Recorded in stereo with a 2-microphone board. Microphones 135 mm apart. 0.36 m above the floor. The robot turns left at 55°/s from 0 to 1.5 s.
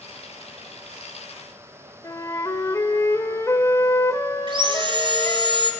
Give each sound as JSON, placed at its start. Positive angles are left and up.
{"t": 2.0, "sound": "a flute", "side_deg": 25, "distance_m": 1.0}
{"t": 4.5, "sound": "sawing", "side_deg": -40, "distance_m": 1.6}